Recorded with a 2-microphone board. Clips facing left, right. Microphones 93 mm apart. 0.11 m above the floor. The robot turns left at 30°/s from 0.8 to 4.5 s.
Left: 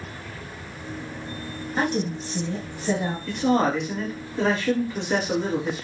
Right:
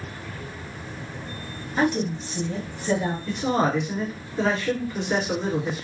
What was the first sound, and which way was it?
A woman speaking, 75° left.